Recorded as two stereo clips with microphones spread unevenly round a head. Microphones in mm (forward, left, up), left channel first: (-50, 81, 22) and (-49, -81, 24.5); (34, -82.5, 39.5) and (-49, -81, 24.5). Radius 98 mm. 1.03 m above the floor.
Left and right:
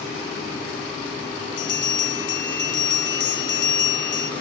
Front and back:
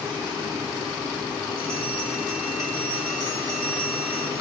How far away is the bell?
About 0.8 m.